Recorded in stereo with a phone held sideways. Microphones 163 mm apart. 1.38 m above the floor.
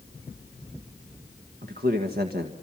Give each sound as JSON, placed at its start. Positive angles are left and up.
{"t": 1.6, "sound": "a man speaking", "side_deg": -75, "distance_m": 1.6}